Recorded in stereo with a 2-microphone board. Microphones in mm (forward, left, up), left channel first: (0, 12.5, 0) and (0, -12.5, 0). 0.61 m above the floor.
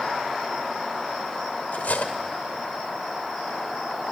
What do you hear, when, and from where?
1.7 s cutlery clinking: 75° left (ahead or behind), 1.4 m